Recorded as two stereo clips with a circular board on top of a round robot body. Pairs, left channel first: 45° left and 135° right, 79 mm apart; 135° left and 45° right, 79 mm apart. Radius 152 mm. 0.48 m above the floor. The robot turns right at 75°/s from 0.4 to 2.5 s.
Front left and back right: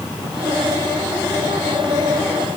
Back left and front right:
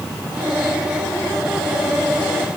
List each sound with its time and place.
Only background noise.